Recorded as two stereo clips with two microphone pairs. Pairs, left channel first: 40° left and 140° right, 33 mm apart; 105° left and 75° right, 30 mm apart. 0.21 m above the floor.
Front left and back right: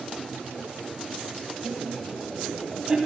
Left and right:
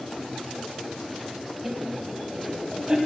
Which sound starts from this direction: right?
Laughter, at 1.6 s.